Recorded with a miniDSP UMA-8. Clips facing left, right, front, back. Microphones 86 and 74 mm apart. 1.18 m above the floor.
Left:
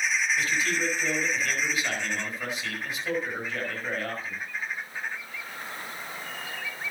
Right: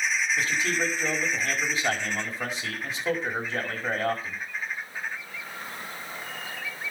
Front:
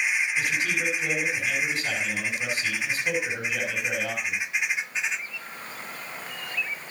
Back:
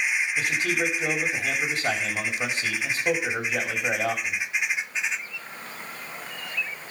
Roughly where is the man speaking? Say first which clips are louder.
Right 1 dB, back 1 dB; behind right.